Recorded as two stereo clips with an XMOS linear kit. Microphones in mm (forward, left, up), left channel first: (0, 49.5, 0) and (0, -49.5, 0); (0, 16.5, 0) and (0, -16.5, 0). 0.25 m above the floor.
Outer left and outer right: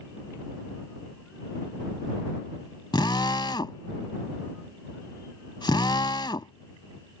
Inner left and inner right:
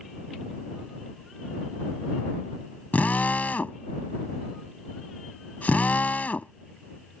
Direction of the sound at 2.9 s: 50° left (ahead or behind).